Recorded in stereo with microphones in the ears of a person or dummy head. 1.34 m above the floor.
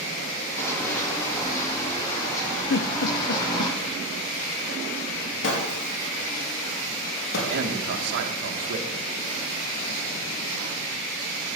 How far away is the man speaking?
About 2 m.